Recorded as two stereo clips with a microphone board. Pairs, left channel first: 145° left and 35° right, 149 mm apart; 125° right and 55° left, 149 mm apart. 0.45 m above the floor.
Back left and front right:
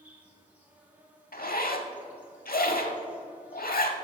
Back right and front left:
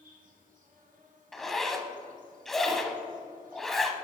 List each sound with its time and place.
0.0 s an insect: 45° left, 2 m
1.3 s a zipper: 150° left, 0.7 m